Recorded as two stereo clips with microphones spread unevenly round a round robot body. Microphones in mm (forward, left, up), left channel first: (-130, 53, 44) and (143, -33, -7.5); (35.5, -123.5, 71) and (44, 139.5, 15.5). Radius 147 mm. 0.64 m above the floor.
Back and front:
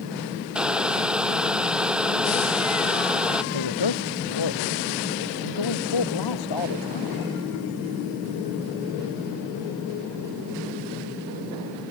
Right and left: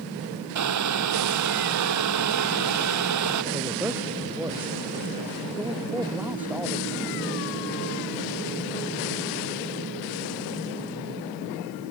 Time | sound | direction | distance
0.6 | boiling | 70° left | ?
3.5 | a man speaking | 175° left | ?